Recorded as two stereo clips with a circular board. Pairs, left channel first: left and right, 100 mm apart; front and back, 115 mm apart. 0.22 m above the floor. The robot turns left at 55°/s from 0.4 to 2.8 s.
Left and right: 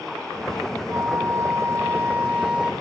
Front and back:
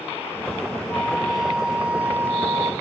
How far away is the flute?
About 0.6 m.